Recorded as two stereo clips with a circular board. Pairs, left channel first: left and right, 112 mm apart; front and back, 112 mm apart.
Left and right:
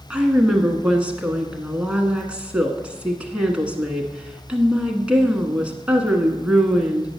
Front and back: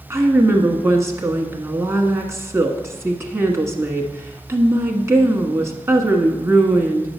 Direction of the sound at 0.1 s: 160° right.